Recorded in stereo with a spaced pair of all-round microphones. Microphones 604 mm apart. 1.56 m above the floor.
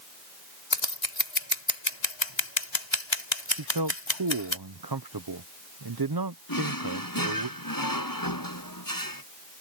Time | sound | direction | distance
0.7 | scissors | 50° left (ahead or behind) | ?
3.6 | a man speaking | 40° right (ahead or behind) | ?
6.5 | a drawer | 35° left (ahead or behind) | ?